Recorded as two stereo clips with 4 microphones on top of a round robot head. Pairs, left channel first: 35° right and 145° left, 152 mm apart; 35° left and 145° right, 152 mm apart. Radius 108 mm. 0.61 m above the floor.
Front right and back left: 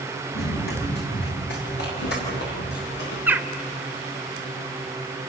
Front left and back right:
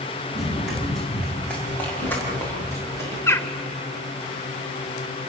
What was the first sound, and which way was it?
Running footsteps, 55° right.